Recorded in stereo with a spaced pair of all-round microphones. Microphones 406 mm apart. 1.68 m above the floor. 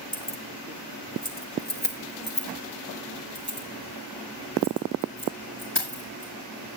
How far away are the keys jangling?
About 1.5 m.